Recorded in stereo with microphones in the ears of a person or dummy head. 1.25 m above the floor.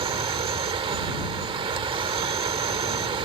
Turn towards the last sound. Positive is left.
turn(degrees=-30)  # may be behind; listen again after turning